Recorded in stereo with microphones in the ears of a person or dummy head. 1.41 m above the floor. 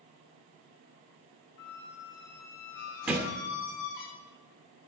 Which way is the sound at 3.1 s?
10° right (ahead or behind).